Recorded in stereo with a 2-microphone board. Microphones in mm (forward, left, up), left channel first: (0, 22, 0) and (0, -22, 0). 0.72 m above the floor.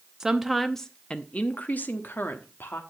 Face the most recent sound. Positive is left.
turn(degrees=60)  # may be behind; listen again after turning